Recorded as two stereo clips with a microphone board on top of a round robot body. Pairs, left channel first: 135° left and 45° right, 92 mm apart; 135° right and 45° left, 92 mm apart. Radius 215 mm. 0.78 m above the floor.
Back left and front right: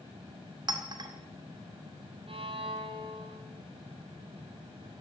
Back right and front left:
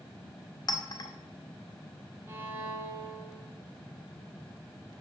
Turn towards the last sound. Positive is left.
turn(degrees=-20)